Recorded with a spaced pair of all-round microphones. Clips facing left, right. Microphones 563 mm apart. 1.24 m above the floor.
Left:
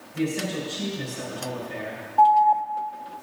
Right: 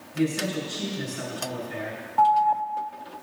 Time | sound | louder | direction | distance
0.1 | a man speaking | right 1 dB | 10° right (ahead or behind) | 6 m
2.2 | an alarm | left 3 dB | 35° right (ahead or behind) | 0.5 m